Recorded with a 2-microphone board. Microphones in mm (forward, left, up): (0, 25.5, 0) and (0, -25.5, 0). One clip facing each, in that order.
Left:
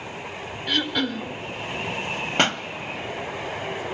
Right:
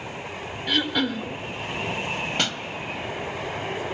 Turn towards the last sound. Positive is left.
turn(degrees=40)  # may be behind; listen again after turning